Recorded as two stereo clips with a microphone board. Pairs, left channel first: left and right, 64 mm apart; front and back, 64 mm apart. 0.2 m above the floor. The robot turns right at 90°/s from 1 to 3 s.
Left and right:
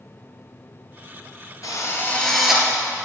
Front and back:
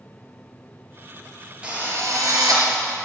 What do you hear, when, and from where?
1.6 s a drill: 110° left, 3 m; by 2.7 s 155° right, 3 m